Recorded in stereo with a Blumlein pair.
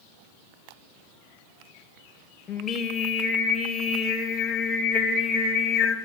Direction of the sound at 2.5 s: 20° left.